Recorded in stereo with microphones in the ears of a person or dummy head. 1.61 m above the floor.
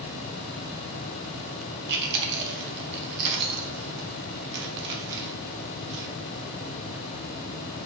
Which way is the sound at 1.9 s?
55° right (ahead or behind).